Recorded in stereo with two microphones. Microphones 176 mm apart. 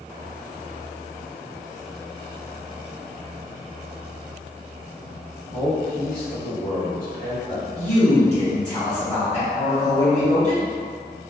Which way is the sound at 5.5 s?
55° left (ahead or behind).